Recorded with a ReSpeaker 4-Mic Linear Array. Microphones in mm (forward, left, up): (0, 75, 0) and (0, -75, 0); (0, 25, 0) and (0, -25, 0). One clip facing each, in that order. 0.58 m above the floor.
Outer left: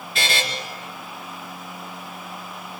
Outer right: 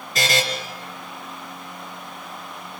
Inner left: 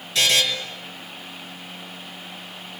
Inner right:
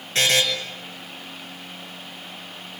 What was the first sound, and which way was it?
A buzzer, 40° right (ahead or behind).